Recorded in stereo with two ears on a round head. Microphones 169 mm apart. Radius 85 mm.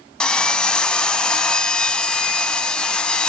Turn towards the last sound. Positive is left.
turn(degrees=5)  # may be behind; listen again after turning